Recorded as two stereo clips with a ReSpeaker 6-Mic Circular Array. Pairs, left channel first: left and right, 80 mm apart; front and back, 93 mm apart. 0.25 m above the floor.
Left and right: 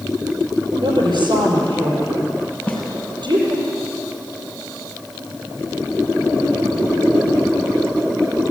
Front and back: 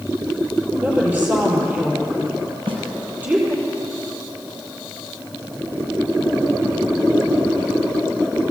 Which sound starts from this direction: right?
A woman speaking, at 0.8 s.